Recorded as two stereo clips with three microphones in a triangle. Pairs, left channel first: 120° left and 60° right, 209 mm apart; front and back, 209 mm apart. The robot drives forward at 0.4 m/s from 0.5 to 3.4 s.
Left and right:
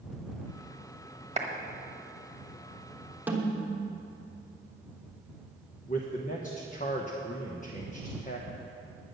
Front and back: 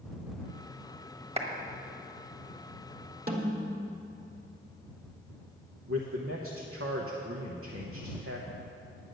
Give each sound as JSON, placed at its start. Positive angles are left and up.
{"t": 1.4, "sound": "a clap", "azimuth_deg": -120, "distance_m": 1.3}
{"t": 3.3, "sound": "a snare drum", "azimuth_deg": -140, "distance_m": 1.4}
{"t": 5.9, "sound": "a man speaking", "azimuth_deg": 175, "distance_m": 1.1}